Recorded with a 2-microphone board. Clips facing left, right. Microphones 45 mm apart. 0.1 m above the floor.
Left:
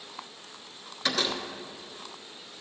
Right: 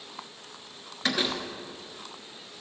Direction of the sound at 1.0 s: 15° right (ahead or behind).